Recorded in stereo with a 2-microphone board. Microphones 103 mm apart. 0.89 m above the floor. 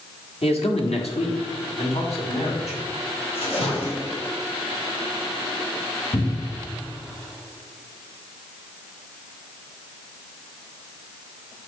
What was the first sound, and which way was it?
A man speaking, 75° left (ahead or behind).